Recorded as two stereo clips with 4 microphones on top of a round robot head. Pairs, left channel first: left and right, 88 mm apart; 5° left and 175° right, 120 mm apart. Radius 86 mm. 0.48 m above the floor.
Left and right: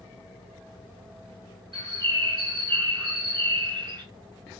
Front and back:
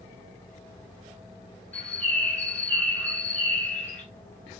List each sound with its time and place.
1.7 s a bird: 75° right, 1.8 m